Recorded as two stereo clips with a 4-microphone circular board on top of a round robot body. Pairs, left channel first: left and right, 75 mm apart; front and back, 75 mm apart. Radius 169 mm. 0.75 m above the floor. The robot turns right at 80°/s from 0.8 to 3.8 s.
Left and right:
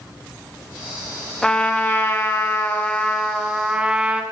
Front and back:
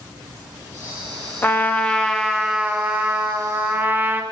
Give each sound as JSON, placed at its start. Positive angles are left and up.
{"t": 1.4, "sound": "a trumpet", "azimuth_deg": 20, "distance_m": 0.7}